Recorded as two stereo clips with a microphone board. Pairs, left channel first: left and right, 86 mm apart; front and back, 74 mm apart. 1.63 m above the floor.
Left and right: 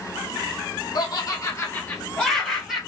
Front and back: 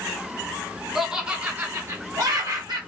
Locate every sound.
0.9 s laughter: 95° left, 0.8 m; by 2.8 s 175° right, 0.9 m